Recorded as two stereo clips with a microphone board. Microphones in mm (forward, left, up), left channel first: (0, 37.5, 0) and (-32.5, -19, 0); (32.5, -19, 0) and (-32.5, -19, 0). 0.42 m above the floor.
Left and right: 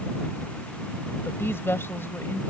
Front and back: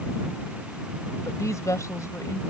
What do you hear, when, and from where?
1.2 s a woman speaking: 15° left